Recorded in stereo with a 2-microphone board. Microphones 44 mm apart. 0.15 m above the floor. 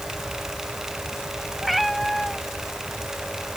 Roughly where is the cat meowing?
Centre.